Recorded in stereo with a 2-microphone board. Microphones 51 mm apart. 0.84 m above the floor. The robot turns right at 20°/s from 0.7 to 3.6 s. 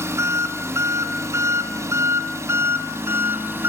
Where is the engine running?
105° right, 2.5 m; by 3.7 s 50° right, 2.5 m.